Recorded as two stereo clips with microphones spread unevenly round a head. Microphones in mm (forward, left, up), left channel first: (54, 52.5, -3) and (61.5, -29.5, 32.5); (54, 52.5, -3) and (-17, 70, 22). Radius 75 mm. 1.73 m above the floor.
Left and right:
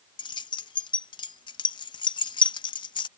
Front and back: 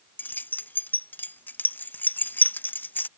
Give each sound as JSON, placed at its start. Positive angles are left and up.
{"t": 0.2, "sound": "keys jangling", "azimuth_deg": 60}